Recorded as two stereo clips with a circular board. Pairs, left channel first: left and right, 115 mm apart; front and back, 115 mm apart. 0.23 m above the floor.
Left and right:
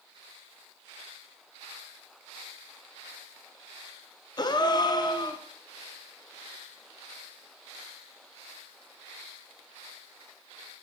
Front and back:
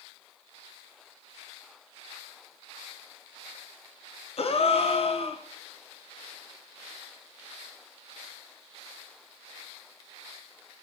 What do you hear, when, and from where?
4.4 s a gasp: 35° left, 0.6 m